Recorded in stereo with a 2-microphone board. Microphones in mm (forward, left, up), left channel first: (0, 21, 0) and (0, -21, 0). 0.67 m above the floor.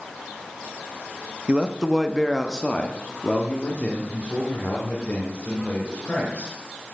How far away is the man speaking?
About 0.5 m.